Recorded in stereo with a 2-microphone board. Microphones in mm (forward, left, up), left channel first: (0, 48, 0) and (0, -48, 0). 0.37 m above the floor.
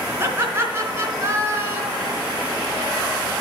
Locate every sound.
0.2 s laughter: 30° right (ahead or behind), 3.5 m